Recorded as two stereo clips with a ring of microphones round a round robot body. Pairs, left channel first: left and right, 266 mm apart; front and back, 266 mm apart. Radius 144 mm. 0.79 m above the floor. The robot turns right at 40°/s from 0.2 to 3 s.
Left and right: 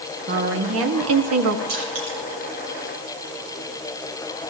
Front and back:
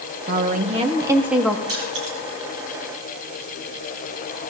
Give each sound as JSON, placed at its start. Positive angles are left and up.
{"t": 0.3, "sound": "a woman speaking", "azimuth_deg": -135, "distance_m": 1.5}
{"t": 1.7, "sound": "crushing", "azimuth_deg": -145, "distance_m": 7.5}